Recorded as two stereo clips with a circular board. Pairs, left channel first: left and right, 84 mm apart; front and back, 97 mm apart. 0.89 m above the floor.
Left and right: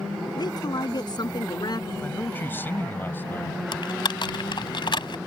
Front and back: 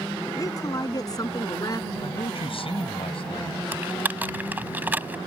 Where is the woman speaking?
55° left.